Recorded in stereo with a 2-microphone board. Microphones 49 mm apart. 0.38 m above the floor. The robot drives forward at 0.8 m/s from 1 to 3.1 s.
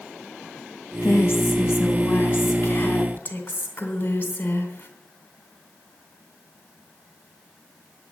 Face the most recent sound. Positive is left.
turn(degrees=35)  # may be behind; listen again after turning